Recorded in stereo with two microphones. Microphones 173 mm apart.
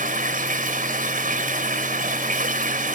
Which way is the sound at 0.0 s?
55° right (ahead or behind).